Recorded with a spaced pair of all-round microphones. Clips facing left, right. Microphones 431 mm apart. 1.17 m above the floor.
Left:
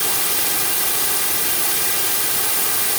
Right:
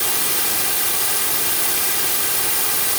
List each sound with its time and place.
Only background noise.